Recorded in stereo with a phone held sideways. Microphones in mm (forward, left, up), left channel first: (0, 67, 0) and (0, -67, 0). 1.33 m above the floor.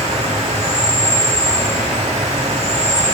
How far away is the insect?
About 1.9 m.